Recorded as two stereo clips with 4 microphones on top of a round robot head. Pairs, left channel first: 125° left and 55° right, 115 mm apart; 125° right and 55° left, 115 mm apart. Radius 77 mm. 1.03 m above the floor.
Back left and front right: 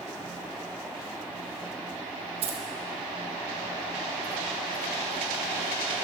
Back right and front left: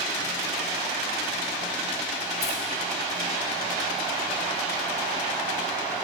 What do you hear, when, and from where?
2.4 s keys jangling: 90° right, 3.5 m